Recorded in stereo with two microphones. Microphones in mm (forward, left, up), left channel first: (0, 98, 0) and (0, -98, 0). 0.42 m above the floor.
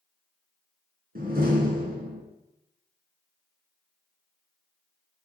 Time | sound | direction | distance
1.1 | a door slam | 50° right (ahead or behind) | 3 m